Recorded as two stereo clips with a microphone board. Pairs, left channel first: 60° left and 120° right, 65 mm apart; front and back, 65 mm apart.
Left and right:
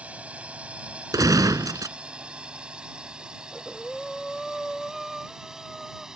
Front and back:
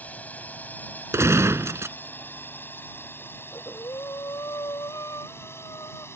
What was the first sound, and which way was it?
A drone, 60° right.